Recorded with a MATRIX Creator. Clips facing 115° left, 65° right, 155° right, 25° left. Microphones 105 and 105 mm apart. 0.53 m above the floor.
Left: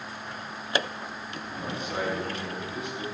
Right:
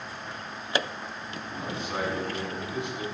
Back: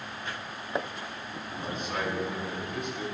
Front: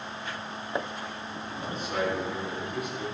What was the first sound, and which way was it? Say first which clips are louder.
A man speaking: even, front 3 dB; 65° right.